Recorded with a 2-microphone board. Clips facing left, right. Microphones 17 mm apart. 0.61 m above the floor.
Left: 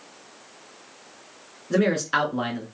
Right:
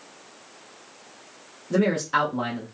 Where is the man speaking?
40° left (ahead or behind), 1.7 m.